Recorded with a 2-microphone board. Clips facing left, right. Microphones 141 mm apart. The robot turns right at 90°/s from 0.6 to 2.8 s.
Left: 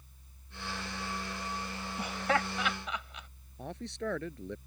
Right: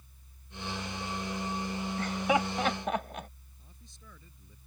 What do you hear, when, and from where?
2.0 s laughter: 15° left (ahead or behind); by 3.3 s 50° right (ahead or behind)
3.6 s a man speaking: 80° left